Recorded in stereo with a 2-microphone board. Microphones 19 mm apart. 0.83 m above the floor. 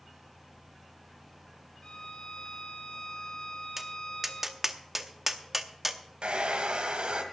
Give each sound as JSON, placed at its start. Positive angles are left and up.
{"t": 1.8, "sound": "a violin", "side_deg": 65, "distance_m": 1.9}
{"t": 3.8, "sound": "tapping", "side_deg": -10, "distance_m": 0.7}
{"t": 6.2, "sound": "a hair dryer", "side_deg": -70, "distance_m": 1.6}